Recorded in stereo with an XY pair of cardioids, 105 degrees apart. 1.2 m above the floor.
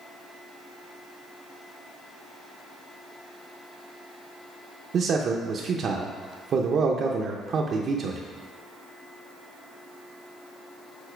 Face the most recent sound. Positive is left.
turn(degrees=-55)